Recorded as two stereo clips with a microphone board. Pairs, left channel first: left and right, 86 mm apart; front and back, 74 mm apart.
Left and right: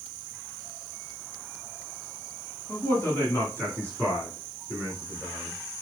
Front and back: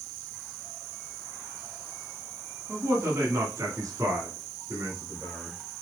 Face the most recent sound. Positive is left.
turn(degrees=165)